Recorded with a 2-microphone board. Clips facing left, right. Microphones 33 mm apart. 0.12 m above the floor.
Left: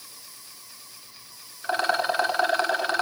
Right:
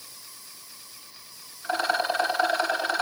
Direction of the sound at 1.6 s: 50° left (ahead or behind).